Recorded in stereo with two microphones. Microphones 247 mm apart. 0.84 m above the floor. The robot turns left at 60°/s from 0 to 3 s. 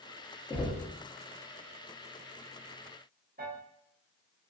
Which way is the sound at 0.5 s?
15° left (ahead or behind).